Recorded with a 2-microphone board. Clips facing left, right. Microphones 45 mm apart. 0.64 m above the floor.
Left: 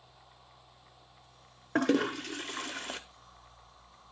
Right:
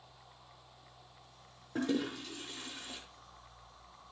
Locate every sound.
1.8 s a toilet flushing: 75° left (ahead or behind), 0.7 m